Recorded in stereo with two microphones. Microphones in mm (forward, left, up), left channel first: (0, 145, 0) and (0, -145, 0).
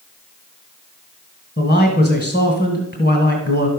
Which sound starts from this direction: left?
A man speaking, at 1.6 s.